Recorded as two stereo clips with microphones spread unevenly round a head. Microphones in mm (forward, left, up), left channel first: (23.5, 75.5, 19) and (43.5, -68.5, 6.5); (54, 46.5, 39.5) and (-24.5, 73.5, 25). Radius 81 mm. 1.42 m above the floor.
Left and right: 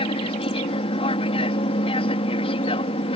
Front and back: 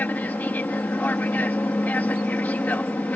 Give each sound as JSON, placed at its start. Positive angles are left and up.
{"t": 0.0, "sound": "an aircraft", "azimuth_deg": 50}